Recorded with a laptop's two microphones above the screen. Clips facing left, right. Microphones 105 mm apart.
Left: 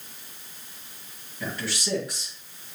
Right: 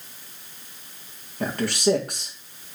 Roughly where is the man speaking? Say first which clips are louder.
Right 10 dB; right.